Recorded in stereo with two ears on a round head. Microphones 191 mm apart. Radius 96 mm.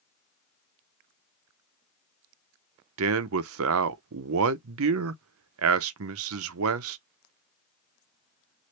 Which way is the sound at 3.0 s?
75° right (ahead or behind).